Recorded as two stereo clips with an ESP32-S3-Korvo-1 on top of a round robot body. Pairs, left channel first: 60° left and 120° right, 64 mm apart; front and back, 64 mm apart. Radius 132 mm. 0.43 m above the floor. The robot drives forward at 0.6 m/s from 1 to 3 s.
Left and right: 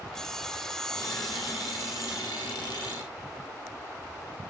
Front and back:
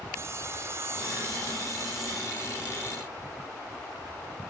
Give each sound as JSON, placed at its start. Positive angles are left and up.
{"t": 0.1, "sound": "sawing", "azimuth_deg": 140, "distance_m": 1.2}